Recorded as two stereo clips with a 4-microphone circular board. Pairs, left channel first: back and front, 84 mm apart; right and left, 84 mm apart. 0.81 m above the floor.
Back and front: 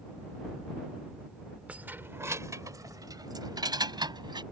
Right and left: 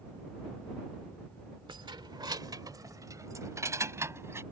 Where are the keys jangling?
75° left; by 4.4 s 30° left.